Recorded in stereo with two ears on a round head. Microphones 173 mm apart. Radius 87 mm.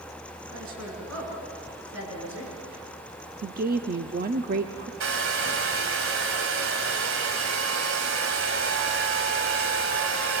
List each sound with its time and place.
0.5 s a woman speaking: 75° right (ahead or behind), 7 m; by 2.5 s 80° right, 8 m
3.4 s a woman speaking: 45° right (ahead or behind), 0.8 m
5.0 s a hair dryer: 80° right, 2 m